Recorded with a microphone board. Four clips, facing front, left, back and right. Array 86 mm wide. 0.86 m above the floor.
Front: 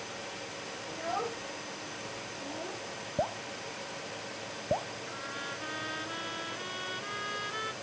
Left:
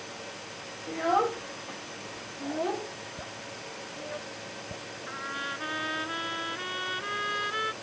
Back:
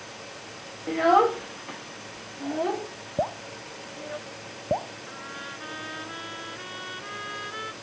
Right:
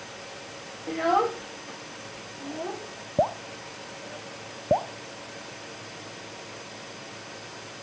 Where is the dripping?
105° right.